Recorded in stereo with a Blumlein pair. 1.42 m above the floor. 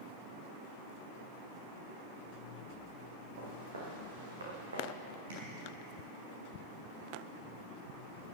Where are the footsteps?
70° right, 5 m.